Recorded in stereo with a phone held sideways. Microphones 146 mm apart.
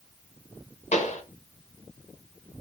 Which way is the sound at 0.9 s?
50° left (ahead or behind).